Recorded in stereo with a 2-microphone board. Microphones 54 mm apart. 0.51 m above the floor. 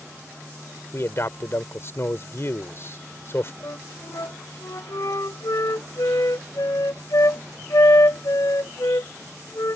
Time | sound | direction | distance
0.9 | a man speaking | 50° left (ahead or behind) | ?
3.6 | a flute | 70° left (ahead or behind) | ?